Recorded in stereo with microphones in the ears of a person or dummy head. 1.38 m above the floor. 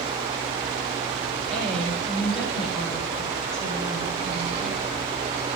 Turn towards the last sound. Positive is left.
turn(degrees=-30)  # may be behind; listen again after turning